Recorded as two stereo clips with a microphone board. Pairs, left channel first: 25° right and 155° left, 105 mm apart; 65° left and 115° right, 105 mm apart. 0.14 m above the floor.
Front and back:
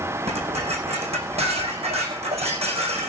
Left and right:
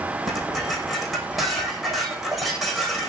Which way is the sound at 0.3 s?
155° left.